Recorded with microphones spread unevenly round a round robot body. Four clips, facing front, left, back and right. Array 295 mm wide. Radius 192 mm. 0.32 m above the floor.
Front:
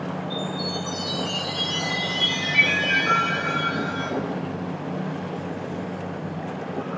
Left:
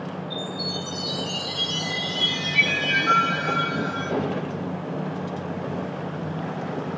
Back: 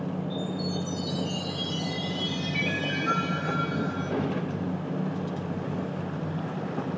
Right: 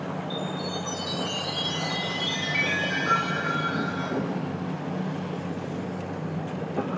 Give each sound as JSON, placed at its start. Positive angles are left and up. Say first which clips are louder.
{"t": 0.3, "sound": "a chime", "louder": "even, front 2 dB", "azimuth_deg": -135, "distance_m": 1.8}